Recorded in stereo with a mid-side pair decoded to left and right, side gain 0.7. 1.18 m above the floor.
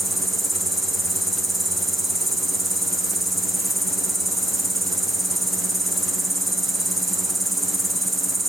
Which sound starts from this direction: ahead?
An insect, at 0.0 s.